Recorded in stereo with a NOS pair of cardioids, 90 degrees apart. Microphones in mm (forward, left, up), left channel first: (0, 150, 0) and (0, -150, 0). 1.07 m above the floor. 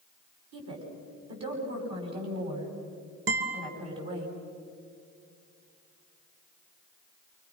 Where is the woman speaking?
55° right, 8.5 m.